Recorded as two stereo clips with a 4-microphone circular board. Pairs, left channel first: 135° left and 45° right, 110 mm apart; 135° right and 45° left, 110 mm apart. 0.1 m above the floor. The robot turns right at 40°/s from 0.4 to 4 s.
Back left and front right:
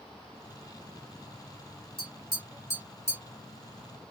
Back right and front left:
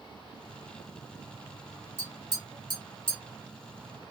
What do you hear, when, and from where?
2.0 s tapping: 165° left, 2 m; by 3.2 s 145° right, 2 m